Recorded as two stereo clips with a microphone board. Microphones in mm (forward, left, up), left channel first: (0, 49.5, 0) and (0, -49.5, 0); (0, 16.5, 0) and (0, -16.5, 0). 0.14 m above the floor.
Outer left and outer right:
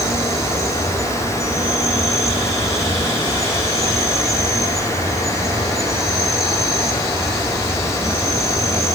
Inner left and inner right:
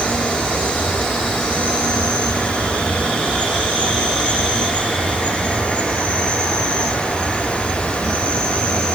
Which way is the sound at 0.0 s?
30° left (ahead or behind).